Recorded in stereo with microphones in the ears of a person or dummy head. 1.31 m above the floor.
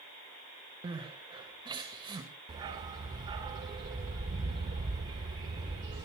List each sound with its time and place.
0.8 s crying: 25° right (ahead or behind), 1.9 m
2.5 s a dog barking: 25° right (ahead or behind), 1.5 m